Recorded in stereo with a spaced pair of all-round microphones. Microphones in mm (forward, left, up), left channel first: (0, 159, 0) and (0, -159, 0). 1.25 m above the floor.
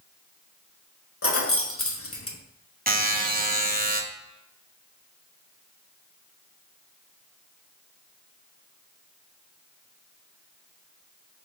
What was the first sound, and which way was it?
Keys jangling, 45° left (ahead or behind).